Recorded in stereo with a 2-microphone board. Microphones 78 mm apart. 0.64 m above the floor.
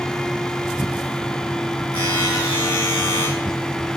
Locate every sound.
1.9 s a buzzer: 60° left (ahead or behind), 8 m